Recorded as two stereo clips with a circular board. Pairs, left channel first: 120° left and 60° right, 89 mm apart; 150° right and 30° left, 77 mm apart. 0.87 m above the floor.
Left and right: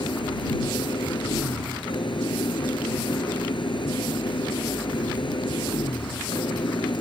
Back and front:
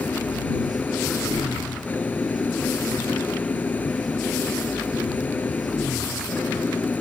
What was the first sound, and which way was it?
An engine running, 145° left.